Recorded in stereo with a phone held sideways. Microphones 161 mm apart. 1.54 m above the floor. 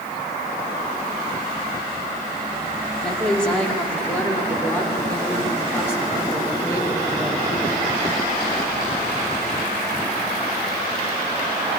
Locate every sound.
3.0 s a woman speaking: 5° left (ahead or behind), 4.5 m; by 7.8 s 20° left (ahead or behind), 8 m